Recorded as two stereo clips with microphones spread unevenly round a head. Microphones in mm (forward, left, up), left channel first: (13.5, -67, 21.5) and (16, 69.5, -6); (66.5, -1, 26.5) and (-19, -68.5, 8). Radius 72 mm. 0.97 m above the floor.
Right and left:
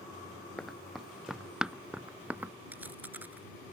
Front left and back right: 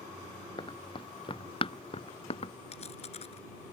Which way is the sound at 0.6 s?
5° right.